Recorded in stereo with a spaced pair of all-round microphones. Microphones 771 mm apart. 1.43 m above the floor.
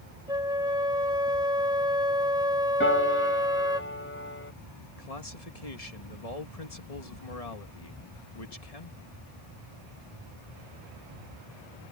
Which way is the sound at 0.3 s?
5° right (ahead or behind).